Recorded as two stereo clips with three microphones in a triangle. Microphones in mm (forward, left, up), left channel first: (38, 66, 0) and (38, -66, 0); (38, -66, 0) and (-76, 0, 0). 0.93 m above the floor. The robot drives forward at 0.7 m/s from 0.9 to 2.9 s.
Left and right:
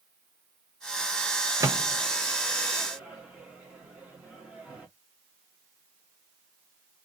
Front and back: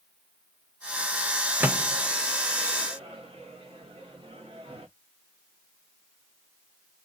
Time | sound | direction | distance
1.6 | a microwave | 140° right | 0.6 m